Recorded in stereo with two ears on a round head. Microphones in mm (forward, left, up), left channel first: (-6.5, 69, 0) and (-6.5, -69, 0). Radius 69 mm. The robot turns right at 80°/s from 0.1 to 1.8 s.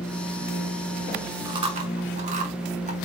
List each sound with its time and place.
1.4 s chewing: 25° right (ahead or behind), 0.8 m; by 3.0 s 50° right (ahead or behind), 0.8 m